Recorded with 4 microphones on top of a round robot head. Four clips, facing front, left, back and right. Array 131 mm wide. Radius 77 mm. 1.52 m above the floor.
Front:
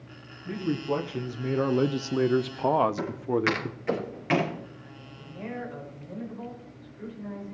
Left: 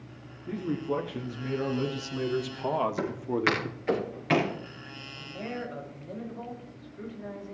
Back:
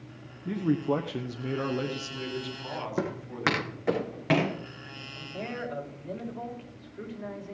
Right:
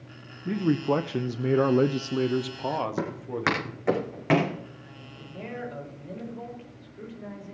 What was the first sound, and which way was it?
A man speaking, 110° right.